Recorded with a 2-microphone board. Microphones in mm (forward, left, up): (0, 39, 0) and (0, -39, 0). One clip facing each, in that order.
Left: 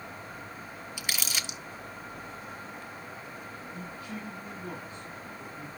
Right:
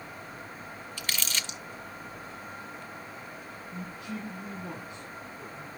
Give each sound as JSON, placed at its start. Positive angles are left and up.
{"t": 1.0, "sound": "crumpling", "side_deg": 10, "distance_m": 1.0}
{"t": 3.7, "sound": "a man speaking", "side_deg": -75, "distance_m": 7.5}